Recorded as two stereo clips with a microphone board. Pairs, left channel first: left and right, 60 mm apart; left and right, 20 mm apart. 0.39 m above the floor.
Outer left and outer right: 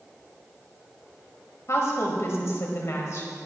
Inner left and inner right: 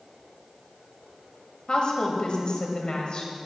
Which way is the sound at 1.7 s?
55° left (ahead or behind).